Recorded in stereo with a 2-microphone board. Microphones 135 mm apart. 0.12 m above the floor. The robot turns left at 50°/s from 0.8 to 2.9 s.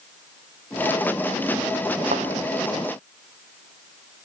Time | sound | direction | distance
2.1 | a thud | 80° right | 2.5 m